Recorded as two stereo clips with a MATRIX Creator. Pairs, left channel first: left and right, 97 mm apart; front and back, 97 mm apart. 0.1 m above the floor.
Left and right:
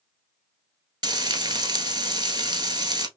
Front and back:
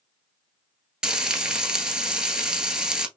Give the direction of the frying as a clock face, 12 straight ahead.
3 o'clock.